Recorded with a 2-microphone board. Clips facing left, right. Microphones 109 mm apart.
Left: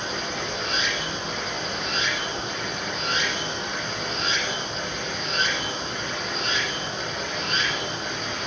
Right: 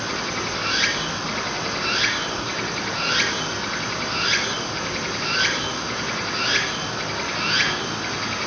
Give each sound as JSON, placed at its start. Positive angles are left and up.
{"t": 0.0, "sound": "running water", "side_deg": -75, "distance_m": 2.0}